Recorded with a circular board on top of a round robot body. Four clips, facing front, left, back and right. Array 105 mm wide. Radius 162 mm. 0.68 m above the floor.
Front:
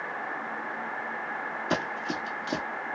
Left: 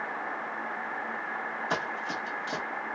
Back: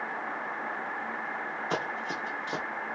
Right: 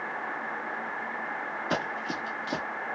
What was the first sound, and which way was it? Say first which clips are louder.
Running footsteps: right 2 dB, front 3 dB; 20° right.